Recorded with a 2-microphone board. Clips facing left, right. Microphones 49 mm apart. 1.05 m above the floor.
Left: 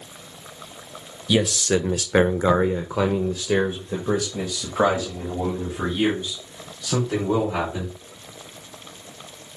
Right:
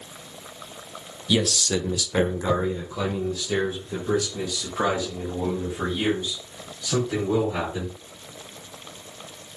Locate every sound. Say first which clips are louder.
1.3 s a man speaking: left 3 dB; 15° left (ahead or behind), 0.7 m; by 7.9 s 25° left (ahead or behind), 3.5 m